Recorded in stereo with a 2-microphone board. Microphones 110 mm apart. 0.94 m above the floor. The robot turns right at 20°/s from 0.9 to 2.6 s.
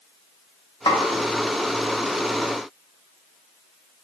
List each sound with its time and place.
0.9 s a snare drum: 45° left (ahead or behind), 0.7 m